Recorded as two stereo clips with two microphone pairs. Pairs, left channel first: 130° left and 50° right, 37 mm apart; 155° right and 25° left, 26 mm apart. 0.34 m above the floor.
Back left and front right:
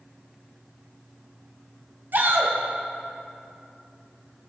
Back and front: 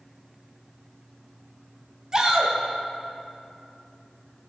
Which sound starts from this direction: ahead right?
A shout, at 2.1 s.